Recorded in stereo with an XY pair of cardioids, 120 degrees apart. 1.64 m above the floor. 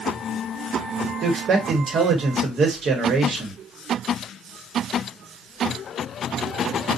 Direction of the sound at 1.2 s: 45° right.